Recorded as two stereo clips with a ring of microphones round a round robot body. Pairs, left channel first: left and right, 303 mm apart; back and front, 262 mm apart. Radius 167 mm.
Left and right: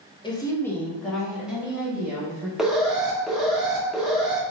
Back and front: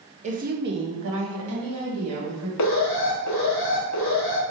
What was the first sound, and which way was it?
A woman speaking, 30° left.